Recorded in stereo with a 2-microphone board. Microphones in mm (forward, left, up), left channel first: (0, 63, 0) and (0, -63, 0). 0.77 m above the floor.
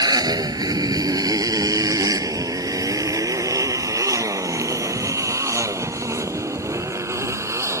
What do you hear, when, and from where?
0.0 s a motorcycle: 30° right (ahead or behind); by 7.8 s 20° right (ahead or behind)